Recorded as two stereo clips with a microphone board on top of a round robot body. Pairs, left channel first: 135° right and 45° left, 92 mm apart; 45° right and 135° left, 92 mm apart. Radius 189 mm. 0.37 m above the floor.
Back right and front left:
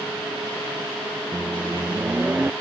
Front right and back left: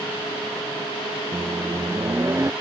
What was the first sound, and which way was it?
A microwave, 105° left.